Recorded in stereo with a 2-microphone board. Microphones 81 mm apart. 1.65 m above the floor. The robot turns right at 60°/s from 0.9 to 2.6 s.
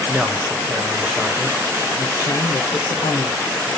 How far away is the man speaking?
About 1.4 m.